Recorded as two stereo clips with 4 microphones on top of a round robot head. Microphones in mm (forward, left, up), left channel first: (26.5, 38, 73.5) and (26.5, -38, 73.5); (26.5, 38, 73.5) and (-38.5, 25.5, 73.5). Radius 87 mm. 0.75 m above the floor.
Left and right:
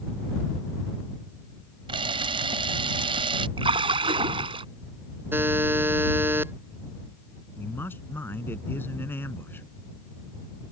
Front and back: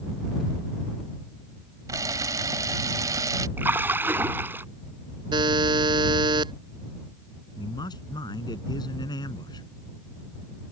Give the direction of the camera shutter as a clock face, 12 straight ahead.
4 o'clock.